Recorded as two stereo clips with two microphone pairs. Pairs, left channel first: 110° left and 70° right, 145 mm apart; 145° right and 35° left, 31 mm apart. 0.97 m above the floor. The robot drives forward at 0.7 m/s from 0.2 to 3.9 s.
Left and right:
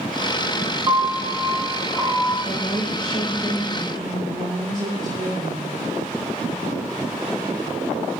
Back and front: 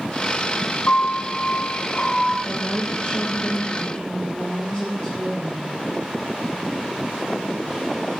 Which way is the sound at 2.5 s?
160° left.